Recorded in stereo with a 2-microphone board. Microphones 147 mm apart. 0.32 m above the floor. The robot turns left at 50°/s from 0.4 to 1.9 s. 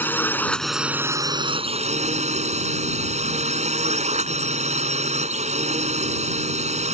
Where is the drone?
15° left; by 6.9 s 60° right.